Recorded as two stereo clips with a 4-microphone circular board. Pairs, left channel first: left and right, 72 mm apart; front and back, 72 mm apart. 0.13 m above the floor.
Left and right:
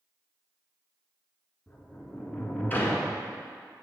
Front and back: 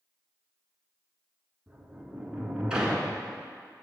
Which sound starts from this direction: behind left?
A sliding door, at 1.7 s.